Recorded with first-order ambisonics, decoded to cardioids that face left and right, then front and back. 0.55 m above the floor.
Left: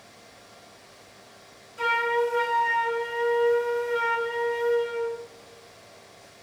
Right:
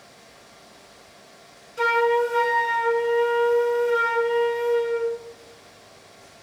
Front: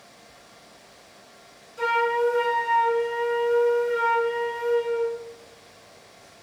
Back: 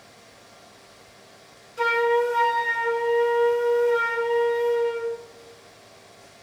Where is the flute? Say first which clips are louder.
Right 4 dB, back 2 dB; 115° right, 0.6 m.